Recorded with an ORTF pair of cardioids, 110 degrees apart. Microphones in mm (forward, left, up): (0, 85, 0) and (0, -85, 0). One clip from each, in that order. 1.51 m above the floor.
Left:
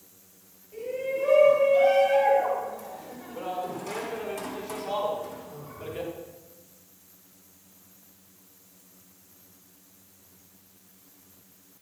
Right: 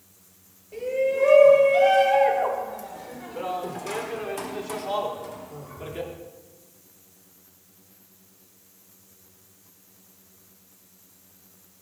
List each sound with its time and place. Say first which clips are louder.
0.7 s a shout: right 6 dB; 45° right, 7 m; by 6.1 s 10° right, 4 m